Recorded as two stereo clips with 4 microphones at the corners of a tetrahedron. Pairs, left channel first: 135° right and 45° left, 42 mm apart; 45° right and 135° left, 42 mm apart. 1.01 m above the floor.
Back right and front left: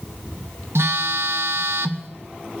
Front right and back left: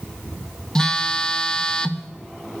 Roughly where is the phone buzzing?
Ahead left.